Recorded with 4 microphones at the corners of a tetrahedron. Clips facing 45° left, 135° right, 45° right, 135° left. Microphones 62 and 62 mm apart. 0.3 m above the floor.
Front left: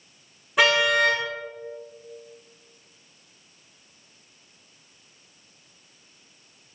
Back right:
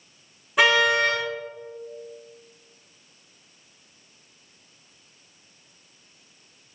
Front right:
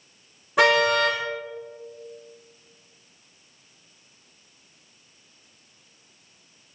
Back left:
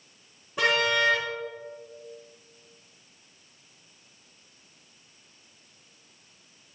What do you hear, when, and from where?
0.6 s a car horn: 45° right, 9 m